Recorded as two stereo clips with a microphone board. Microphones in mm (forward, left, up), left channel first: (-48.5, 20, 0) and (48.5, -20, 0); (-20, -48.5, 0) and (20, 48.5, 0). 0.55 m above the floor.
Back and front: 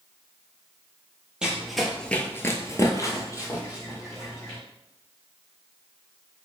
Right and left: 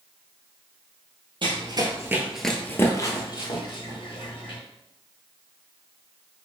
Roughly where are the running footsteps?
Ahead left.